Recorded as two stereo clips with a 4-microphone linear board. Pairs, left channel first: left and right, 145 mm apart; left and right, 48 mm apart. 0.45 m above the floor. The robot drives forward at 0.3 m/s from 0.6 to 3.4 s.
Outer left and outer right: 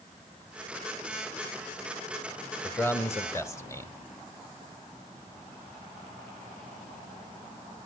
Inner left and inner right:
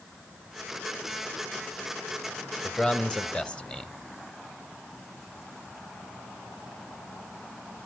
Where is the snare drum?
I don't hear a snare drum.